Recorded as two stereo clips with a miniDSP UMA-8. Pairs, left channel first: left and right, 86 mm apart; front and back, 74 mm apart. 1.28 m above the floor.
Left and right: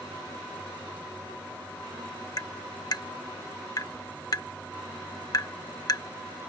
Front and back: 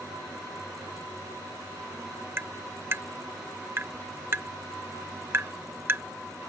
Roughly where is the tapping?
Behind left.